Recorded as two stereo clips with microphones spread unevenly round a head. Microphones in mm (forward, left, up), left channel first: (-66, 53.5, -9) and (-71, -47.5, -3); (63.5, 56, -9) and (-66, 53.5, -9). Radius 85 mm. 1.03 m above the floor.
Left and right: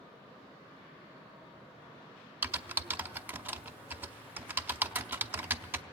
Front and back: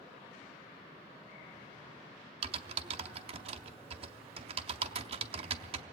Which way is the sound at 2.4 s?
155° right.